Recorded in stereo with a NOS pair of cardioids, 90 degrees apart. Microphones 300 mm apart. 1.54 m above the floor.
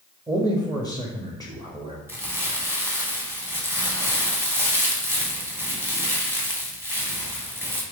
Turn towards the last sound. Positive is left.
turn(degrees=-10)